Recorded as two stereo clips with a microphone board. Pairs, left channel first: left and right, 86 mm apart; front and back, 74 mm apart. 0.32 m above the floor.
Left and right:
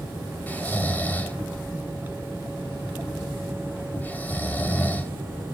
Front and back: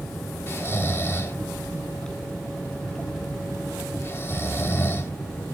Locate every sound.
0.5 s snoring: 35° left, 1.5 m